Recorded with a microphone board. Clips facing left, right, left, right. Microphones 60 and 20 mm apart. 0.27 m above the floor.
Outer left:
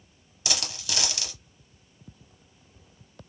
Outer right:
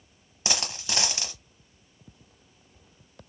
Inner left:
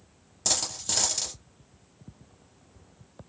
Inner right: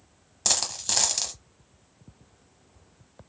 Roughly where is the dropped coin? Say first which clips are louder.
Outer right 2 dB, inner right 2 dB; right.